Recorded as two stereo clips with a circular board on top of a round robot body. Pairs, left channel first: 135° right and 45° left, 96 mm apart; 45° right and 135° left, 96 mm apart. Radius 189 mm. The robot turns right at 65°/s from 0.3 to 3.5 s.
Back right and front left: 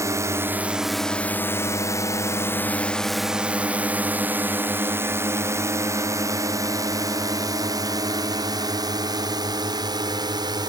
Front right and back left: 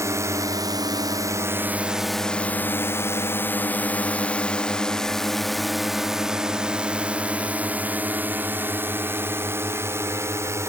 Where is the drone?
90° left; by 10.7 s 80° left.